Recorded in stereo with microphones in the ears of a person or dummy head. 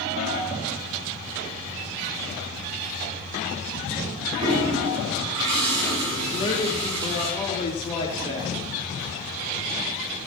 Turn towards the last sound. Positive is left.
turn(degrees=30)  # may be behind; listen again after turning